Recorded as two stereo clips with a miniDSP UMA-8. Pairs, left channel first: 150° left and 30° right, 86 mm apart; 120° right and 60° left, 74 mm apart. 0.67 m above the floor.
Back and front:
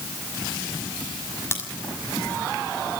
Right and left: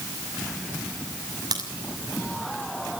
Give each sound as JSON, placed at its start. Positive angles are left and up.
{"t": 1.5, "sound": "a crack", "azimuth_deg": 90, "distance_m": 6.0}